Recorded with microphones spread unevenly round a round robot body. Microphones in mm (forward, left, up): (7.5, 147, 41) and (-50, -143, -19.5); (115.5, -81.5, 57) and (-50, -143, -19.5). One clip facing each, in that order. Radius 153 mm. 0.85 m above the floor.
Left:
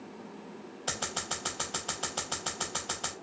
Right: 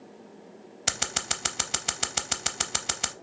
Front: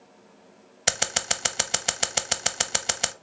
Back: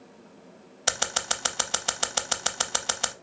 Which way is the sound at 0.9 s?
50° right.